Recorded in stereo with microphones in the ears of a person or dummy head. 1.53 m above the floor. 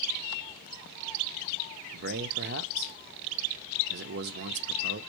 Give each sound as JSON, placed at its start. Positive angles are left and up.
{"t": 1.9, "sound": "a man speaking", "side_deg": -50, "distance_m": 0.6}